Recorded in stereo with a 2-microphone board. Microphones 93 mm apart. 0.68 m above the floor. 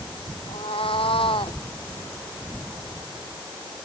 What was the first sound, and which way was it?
A cat meowing, 75° left (ahead or behind).